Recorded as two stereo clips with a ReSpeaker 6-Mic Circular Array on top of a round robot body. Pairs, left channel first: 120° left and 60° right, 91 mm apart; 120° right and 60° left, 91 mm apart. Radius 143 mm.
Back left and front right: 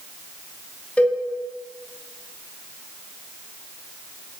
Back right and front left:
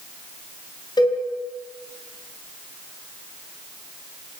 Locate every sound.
1.0 s a cowbell: 165° right, 4.5 m